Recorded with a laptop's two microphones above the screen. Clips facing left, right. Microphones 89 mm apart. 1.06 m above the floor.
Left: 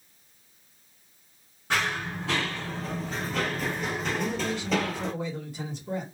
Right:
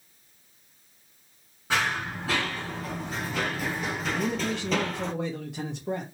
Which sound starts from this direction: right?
A man speaking, at 4.1 s.